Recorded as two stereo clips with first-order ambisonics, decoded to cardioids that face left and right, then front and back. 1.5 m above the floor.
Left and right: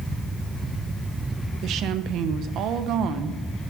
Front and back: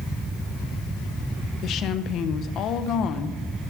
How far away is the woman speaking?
About 0.8 m.